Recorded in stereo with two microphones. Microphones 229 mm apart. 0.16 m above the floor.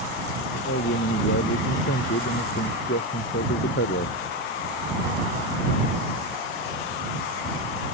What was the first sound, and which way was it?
A man speaking, 75° left (ahead or behind).